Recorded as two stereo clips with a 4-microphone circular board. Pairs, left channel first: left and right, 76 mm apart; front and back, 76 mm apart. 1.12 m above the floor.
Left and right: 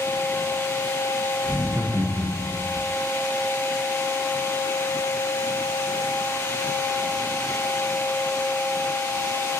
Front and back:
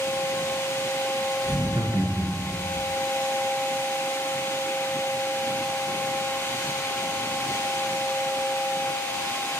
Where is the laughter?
160° right, 0.6 m; by 2.8 s 105° right, 1.3 m.